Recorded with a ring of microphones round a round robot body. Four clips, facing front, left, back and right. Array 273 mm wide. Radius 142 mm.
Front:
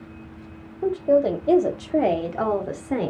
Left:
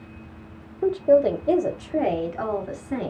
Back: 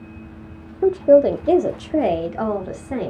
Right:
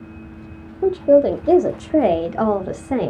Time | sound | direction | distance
0.8 | a woman speaking | 165° right | 0.9 m